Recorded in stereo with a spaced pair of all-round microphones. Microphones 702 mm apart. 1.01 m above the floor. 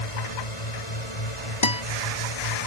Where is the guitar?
40° left (ahead or behind).